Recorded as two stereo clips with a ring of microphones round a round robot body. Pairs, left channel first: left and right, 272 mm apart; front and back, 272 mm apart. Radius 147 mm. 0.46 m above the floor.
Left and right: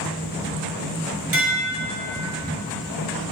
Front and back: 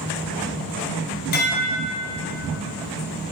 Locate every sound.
1.3 s dishes clattering: 55° right, 1.5 m